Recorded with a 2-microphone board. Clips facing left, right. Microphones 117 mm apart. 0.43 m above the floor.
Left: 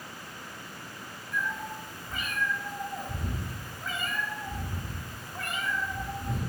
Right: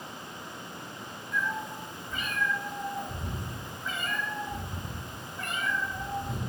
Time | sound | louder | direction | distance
1.3 | a cat meowing | right 1 dB | 55° left (ahead or behind) | 0.7 m